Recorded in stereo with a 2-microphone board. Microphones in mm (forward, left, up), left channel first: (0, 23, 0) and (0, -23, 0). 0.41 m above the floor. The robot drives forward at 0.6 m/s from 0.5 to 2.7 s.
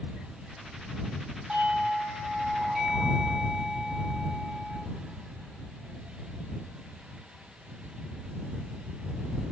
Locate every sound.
1.5 s a doorbell: 25° right (ahead or behind), 3.5 m; by 4.8 s 20° right (ahead or behind), 4 m